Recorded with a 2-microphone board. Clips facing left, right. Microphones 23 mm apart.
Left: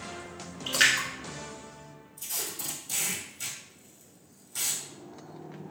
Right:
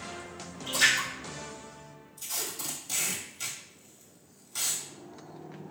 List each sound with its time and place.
0.7 s a splash: 55° left (ahead or behind), 1.2 m
2.2 s tape being pulled: 20° right (ahead or behind), 1.2 m